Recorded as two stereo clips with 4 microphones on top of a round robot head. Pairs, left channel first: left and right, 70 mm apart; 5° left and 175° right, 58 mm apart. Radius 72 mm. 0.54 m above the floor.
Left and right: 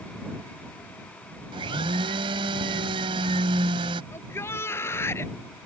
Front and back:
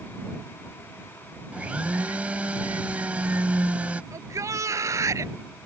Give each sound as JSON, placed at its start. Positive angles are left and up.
{"t": 1.5, "sound": "a blender", "azimuth_deg": -105}
{"t": 4.1, "sound": "a shout", "azimuth_deg": 150}